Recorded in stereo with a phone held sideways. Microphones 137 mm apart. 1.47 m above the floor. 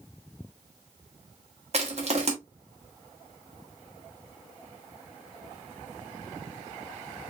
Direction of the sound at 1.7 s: 50° right (ahead or behind).